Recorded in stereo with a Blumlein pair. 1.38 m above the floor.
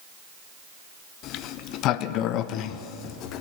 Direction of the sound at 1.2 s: 35° left.